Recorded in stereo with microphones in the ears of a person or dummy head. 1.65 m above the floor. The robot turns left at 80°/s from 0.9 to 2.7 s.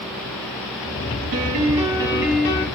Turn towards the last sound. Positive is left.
turn(degrees=150)